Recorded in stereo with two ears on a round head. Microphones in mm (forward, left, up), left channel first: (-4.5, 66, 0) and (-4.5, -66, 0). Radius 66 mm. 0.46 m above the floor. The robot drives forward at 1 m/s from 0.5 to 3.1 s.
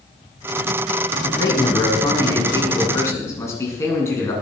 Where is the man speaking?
30° left (ahead or behind), 4 m; by 4.3 s 20° left (ahead or behind), 6 m.